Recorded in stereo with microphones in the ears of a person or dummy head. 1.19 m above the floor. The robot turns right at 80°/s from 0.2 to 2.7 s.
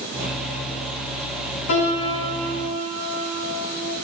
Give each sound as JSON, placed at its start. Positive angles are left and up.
{"t": 1.7, "sound": "a piano", "azimuth_deg": 110, "distance_m": 3.5}